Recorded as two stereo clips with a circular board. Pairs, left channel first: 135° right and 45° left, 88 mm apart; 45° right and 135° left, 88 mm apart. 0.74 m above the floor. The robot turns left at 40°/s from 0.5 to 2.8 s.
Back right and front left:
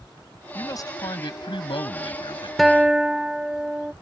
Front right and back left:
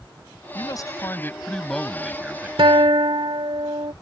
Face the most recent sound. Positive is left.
turn(degrees=125)